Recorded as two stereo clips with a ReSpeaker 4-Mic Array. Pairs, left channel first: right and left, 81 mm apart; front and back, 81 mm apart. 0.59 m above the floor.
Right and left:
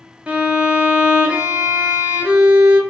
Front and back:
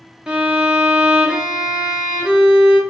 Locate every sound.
0.3 s a violin: 125° left, 0.9 m